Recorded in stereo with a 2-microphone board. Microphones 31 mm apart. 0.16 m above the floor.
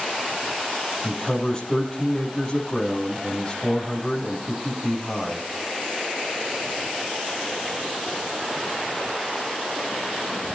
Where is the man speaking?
25° left (ahead or behind), 6 m.